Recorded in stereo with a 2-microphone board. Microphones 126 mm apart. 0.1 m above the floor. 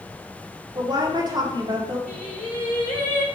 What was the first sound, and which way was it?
A woman speaking, 35° right (ahead or behind).